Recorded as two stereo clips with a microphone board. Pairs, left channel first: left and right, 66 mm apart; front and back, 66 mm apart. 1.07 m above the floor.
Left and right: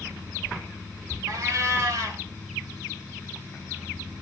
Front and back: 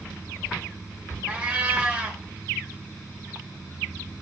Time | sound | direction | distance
1.3 | a cat meowing | 110° right | 1.2 m